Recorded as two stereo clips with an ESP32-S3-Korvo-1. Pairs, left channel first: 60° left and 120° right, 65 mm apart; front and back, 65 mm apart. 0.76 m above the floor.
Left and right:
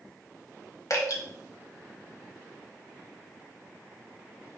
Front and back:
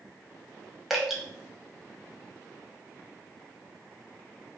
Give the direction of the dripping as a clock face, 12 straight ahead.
9 o'clock.